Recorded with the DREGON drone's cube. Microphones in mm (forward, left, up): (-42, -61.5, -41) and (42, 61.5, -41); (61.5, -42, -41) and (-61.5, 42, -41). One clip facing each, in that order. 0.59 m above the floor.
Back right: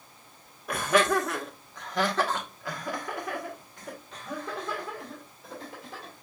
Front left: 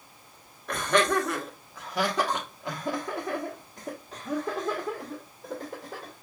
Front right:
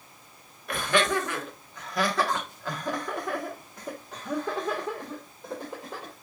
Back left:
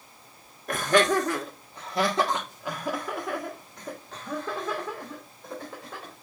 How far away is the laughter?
About 1.4 m.